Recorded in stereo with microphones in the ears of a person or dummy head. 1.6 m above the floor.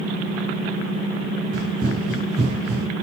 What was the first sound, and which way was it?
Running footsteps, 55° right (ahead or behind).